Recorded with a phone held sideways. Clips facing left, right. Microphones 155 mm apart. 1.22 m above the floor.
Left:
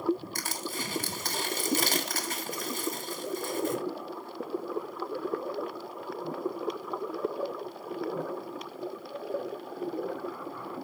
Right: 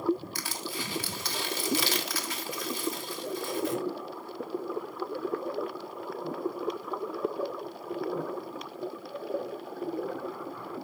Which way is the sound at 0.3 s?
45° left (ahead or behind).